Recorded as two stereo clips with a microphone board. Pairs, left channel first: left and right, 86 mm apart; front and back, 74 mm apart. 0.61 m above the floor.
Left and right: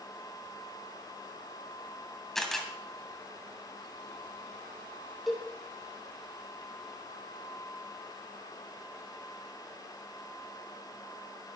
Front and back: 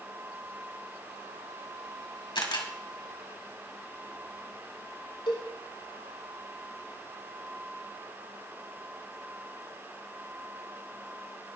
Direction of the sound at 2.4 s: 5° left.